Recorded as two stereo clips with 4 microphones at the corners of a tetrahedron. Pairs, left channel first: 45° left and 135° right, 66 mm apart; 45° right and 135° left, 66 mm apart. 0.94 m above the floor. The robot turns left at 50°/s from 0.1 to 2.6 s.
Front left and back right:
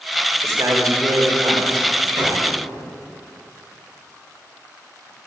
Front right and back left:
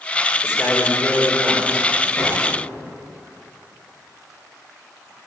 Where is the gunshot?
110° right, 5 m; by 2.4 s 125° right, 5 m.